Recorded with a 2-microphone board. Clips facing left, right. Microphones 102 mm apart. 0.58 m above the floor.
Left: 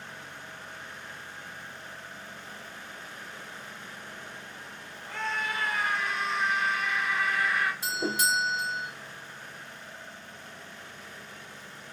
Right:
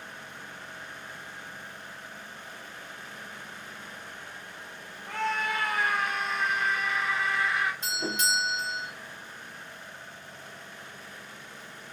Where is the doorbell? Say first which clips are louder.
Left 2 dB; 5° left (ahead or behind), 1.8 m.